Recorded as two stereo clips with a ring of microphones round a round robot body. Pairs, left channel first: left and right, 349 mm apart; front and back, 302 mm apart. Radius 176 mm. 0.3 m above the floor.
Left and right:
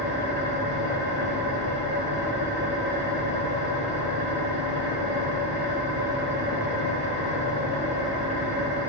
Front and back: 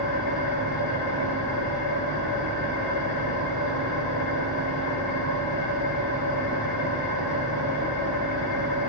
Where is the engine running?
30° right, 2 m.